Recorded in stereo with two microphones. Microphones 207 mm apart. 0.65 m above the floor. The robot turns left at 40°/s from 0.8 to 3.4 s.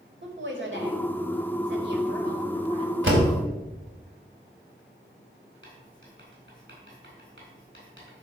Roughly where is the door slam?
Right.